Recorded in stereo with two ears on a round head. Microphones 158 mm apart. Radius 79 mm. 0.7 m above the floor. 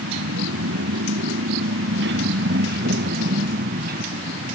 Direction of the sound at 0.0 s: 90° right.